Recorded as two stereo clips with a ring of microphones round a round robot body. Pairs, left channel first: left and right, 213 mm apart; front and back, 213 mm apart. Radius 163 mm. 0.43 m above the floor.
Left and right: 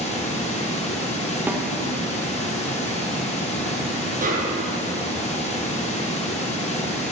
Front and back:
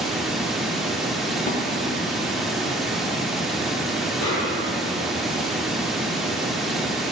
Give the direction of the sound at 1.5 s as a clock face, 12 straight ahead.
12 o'clock.